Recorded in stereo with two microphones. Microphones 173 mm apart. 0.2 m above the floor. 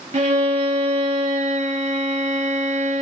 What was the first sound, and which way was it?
A violin, 45° right (ahead or behind).